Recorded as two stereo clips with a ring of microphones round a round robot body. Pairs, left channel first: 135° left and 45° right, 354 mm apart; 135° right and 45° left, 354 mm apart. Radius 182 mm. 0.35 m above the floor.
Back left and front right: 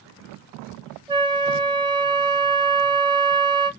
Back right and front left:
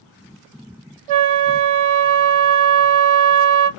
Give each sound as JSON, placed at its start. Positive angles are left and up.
{"t": 1.1, "sound": "a flute", "azimuth_deg": 35, "distance_m": 0.7}